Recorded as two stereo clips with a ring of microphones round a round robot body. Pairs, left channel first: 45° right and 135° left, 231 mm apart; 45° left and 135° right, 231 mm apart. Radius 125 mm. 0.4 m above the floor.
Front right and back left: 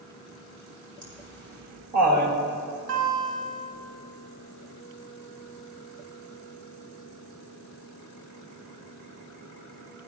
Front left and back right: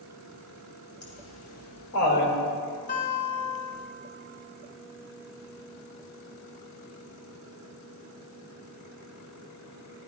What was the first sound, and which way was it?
Laughter, 105° left.